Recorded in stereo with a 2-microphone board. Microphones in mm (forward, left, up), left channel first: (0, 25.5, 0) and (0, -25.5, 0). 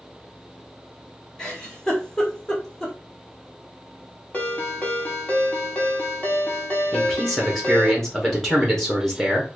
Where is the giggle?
10° left (ahead or behind), 1.4 m.